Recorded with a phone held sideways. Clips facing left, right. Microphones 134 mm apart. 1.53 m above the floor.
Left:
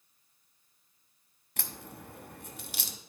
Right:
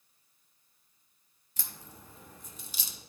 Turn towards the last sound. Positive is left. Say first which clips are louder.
# left 6 dB
turn(degrees=65)  # may be behind; listen again after turning